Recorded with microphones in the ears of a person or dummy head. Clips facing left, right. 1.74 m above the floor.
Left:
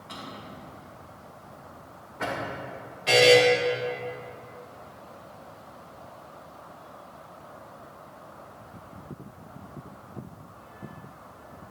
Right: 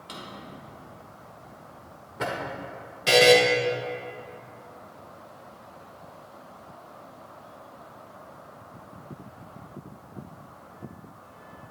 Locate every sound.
0.1 s a drawer: 50° right (ahead or behind), 2.5 m
3.1 s a buzzer: 60° right (ahead or behind), 1.8 m